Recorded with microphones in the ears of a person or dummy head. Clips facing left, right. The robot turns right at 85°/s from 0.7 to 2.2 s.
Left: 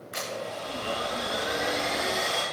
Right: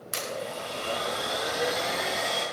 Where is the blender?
125° right, 6.5 m; by 2.4 s straight ahead, 6.5 m.